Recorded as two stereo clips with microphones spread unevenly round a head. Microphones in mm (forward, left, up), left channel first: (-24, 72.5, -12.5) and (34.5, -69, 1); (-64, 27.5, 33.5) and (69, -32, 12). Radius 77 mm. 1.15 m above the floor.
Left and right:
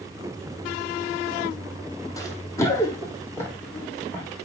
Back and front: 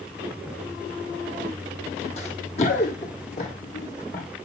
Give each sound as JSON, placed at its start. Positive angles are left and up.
{"t": 2.2, "sound": "running footsteps", "azimuth_deg": 180, "distance_m": 1.8}